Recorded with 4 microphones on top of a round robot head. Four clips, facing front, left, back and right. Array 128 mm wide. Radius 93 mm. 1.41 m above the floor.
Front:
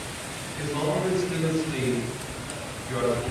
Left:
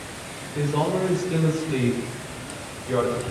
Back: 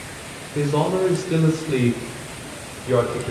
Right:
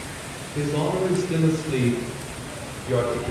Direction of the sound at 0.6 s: Straight behind.